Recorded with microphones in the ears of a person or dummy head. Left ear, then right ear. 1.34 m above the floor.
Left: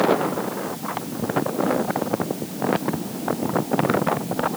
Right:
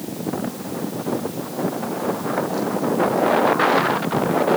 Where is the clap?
No clap in this recording.